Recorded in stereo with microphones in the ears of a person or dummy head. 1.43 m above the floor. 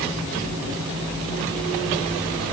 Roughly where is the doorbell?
No doorbell in this recording.